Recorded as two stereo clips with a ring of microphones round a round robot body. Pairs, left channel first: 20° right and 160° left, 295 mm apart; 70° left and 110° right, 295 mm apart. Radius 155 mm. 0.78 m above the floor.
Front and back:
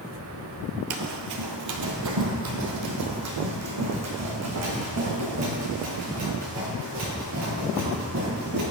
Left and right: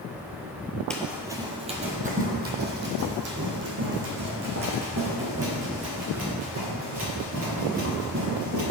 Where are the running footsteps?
155° left, 1.0 m; by 8.6 s 155° right, 6.5 m.